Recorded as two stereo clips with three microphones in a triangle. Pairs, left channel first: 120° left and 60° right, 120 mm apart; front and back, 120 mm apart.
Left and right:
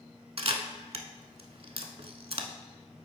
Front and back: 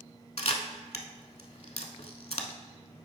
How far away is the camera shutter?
About 0.7 m.